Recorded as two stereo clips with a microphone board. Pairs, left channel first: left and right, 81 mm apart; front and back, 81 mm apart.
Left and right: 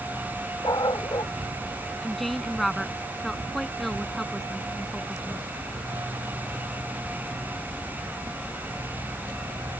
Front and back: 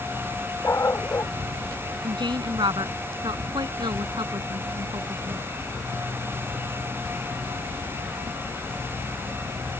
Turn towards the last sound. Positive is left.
turn(degrees=180)